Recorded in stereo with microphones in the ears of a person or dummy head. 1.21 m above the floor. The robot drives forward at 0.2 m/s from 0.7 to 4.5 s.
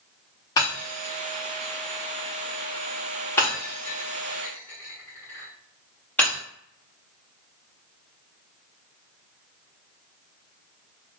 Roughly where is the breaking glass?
Centre.